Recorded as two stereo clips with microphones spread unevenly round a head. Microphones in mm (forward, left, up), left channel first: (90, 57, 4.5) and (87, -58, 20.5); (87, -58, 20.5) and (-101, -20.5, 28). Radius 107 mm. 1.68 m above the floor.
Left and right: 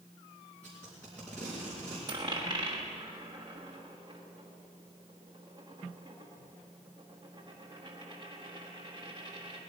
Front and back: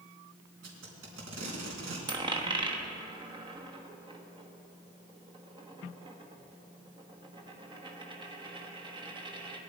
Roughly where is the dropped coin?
Behind right.